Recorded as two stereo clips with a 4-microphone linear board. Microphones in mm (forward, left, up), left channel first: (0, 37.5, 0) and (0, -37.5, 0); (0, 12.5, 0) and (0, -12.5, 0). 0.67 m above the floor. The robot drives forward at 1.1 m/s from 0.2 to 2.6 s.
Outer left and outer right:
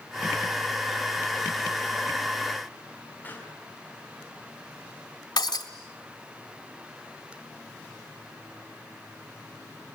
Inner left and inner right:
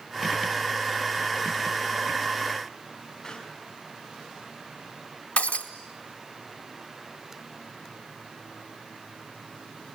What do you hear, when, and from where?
3.2 s a pop: 25° left (ahead or behind), 5.5 m
5.4 s breaking glass: 70° left (ahead or behind), 3 m